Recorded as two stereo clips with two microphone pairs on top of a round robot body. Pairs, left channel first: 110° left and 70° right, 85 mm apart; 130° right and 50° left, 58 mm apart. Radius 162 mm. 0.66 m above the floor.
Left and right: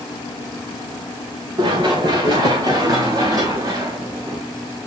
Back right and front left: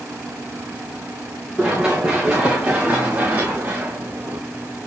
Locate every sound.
1.6 s running footsteps: 35° right, 4 m; by 4.4 s 5° right, 3.5 m